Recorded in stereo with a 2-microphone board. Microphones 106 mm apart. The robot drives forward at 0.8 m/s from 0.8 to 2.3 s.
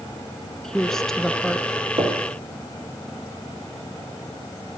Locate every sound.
0.6 s a woman speaking: 5° left (ahead or behind), 1.3 m
2.0 s knocking: 50° right (ahead or behind), 5.5 m